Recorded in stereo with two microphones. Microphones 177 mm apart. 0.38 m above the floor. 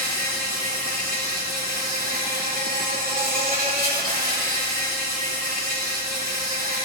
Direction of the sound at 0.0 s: 55° right (ahead or behind).